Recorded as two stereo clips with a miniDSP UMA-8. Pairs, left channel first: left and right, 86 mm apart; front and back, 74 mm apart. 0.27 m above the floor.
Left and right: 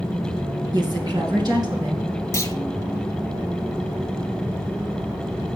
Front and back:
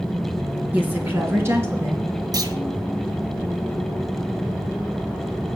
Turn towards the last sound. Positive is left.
turn(degrees=150)